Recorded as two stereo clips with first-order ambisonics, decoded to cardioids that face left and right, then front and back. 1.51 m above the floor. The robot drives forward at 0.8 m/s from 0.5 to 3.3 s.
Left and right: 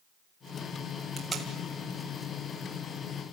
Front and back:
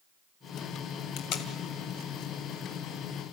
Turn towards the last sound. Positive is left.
turn(degrees=-65)